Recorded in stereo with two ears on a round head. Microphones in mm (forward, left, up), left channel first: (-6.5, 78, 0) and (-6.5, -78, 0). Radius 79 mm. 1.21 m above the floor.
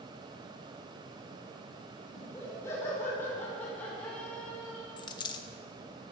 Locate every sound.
2.1 s laughter: 20° left (ahead or behind), 4.5 m; by 4.9 s 5° left (ahead or behind), 5 m
5.0 s a dropped coin: 25° left (ahead or behind), 0.7 m